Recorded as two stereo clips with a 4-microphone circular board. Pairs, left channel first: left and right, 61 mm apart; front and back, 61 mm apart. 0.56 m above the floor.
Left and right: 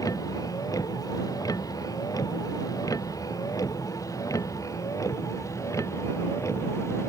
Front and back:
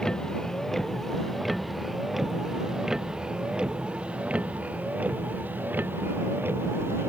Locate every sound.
0.0 s a vehicle: 80° left; by 7.1 s 130° left